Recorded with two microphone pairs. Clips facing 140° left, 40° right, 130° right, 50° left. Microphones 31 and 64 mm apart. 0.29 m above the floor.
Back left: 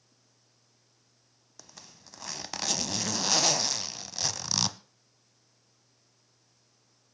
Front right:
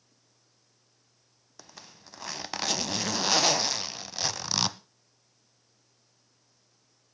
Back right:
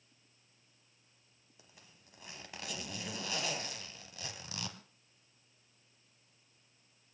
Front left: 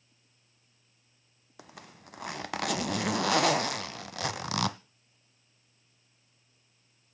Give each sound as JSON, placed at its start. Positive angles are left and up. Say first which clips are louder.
{"t": 1.6, "sound": "a zipper", "louder": "front right 3 dB, front left 15 dB", "azimuth_deg": 35, "distance_m": 0.5}